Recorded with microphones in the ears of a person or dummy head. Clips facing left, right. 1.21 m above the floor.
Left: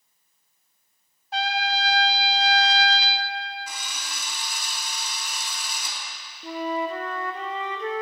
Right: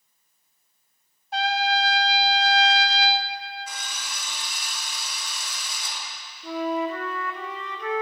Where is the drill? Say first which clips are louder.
Even; 85° left, 3 m.